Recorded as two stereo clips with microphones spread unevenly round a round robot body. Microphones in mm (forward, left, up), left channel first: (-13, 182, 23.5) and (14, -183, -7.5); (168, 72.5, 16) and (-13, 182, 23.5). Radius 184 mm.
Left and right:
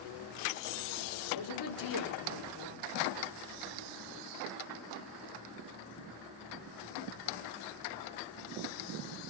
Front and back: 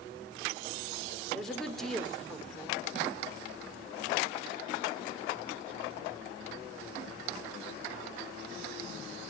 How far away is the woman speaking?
About 4 m.